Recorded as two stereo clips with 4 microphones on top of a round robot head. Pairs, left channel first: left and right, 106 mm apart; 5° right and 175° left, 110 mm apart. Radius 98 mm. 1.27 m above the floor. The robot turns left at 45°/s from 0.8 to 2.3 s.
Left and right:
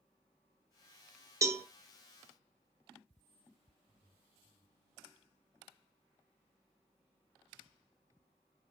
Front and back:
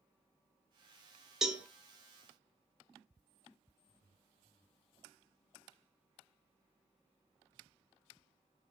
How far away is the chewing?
No chewing in this recording.